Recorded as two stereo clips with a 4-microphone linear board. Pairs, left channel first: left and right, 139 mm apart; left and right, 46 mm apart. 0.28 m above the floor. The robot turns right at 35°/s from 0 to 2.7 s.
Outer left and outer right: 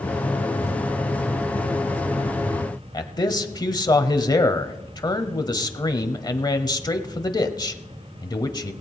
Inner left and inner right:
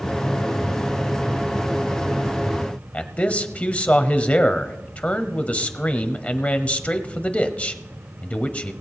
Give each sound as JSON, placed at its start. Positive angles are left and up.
{"t": 2.9, "sound": "a man speaking", "side_deg": 30, "distance_m": 1.1}